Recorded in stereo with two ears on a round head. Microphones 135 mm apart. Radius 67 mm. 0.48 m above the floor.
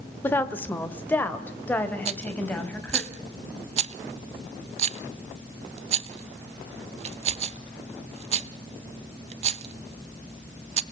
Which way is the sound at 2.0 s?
45° right (ahead or behind).